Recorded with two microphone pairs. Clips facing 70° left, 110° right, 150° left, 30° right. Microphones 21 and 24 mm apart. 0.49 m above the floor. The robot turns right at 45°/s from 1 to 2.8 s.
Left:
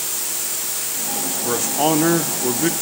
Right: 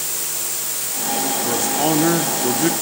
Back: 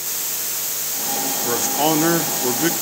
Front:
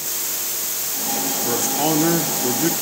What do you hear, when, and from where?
1.4 s a man speaking: 105° left, 0.7 m; by 2.7 s 160° left, 0.7 m